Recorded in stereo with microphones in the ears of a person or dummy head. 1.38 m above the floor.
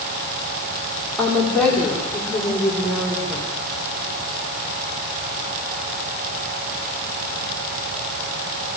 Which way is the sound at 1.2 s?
5° left (ahead or behind).